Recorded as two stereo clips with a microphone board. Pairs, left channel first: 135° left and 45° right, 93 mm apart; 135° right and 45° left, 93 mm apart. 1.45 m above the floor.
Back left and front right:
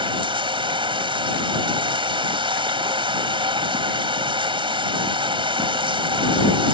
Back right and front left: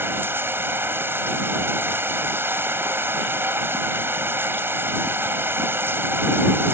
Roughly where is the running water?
Ahead.